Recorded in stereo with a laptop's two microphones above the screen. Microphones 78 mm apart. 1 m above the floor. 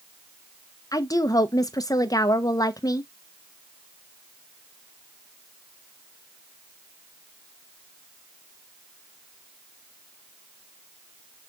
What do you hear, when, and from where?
0.9 s a woman speaking: 50° left (ahead or behind), 0.6 m